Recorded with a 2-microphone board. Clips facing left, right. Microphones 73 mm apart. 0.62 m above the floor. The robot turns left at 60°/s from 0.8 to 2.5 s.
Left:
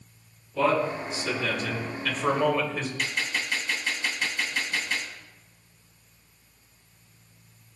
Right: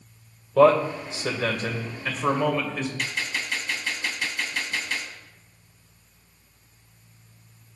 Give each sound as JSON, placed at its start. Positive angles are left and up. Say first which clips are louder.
{"t": 0.6, "sound": "a man speaking", "louder": "right 7 dB", "azimuth_deg": -80, "distance_m": 2.0}
{"t": 3.0, "sound": "a gunshot", "louder": "even", "side_deg": 0, "distance_m": 2.5}